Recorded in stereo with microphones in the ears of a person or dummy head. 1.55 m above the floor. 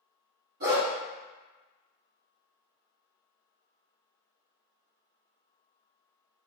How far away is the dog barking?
About 1.5 m.